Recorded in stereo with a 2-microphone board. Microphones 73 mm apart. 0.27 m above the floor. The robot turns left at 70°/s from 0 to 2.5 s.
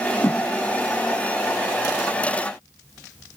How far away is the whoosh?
About 1.4 m.